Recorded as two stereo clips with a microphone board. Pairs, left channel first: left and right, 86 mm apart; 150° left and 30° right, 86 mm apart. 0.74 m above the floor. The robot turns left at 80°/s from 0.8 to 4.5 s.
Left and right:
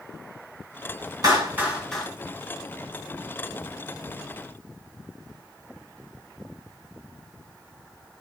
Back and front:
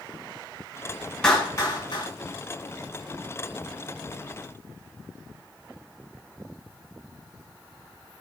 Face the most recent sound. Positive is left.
turn(degrees=-30)